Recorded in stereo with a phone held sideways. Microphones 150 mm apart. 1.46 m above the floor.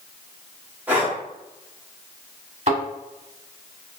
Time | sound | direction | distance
0.9 | breathing | 10° right (ahead or behind) | 1.0 m
2.7 | a thud | 45° right (ahead or behind) | 1.7 m